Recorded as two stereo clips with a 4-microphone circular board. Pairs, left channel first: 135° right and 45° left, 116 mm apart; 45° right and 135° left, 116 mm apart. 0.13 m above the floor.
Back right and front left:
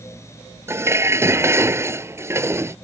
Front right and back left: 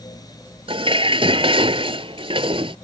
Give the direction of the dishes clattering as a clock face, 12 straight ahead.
8 o'clock.